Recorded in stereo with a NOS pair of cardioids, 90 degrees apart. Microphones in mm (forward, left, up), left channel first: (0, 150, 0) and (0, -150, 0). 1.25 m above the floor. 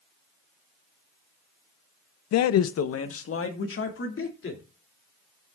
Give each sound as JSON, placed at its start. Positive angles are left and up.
{"t": 2.3, "sound": "a man speaking", "azimuth_deg": 60, "distance_m": 0.6}